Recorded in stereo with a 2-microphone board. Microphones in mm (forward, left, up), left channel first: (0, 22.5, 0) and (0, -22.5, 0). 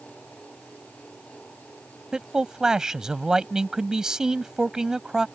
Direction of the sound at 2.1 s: 15° right (ahead or behind).